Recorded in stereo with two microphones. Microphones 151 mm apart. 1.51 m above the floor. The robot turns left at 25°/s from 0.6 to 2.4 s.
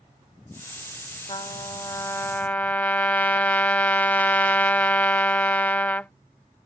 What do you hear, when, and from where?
1.3 s a trumpet: 35° left (ahead or behind); by 6.1 s 10° left (ahead or behind)